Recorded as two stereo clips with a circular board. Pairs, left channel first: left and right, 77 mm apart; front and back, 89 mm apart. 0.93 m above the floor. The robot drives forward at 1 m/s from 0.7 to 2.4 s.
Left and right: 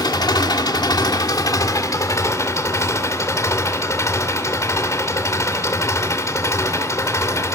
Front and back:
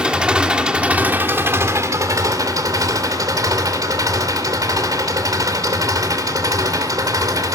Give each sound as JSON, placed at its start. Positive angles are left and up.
{"t": 0.0, "sound": "an engine running", "azimuth_deg": 100, "distance_m": 2.0}